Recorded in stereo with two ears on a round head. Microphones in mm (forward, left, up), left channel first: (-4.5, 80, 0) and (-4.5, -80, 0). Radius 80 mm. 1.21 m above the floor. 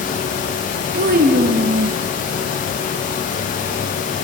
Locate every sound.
0.9 s a child speaking: 50° right (ahead or behind), 1.5 m; by 2.0 s 75° right (ahead or behind), 0.5 m